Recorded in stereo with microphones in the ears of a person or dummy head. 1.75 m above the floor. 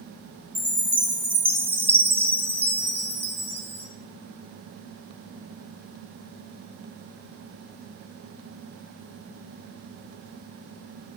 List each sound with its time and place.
0.6 s a chime: 20° right (ahead or behind), 0.9 m